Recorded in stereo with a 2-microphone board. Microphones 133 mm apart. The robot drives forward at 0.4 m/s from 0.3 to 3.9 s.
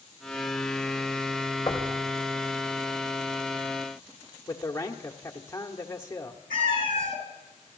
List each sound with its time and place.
1.7 s knocking: 35° left (ahead or behind), 2 m; by 1.9 s 30° left (ahead or behind), 2 m
4.5 s a man speaking: 20° left (ahead or behind), 1.4 m
6.5 s a cat meowing: 85° right, 3 m